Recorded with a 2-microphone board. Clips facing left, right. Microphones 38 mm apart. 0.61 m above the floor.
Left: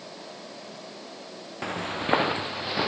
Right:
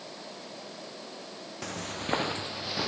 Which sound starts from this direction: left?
Footsteps, at 1.6 s.